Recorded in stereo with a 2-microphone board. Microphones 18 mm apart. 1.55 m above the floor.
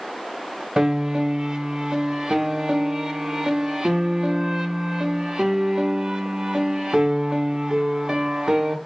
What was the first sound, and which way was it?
A piano, 45° right (ahead or behind).